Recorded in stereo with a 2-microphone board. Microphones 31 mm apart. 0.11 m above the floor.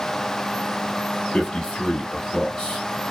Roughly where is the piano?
No piano in this recording.